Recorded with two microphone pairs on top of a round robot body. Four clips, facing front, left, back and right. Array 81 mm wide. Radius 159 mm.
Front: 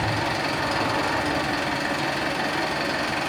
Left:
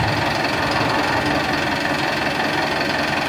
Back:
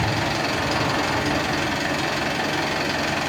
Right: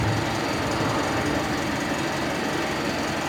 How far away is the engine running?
About 1.2 m.